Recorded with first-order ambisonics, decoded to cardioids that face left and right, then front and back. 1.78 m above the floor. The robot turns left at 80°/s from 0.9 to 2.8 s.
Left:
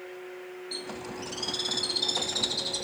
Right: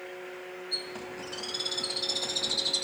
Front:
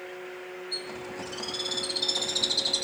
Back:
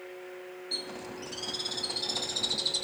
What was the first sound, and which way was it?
A bird, 135° left.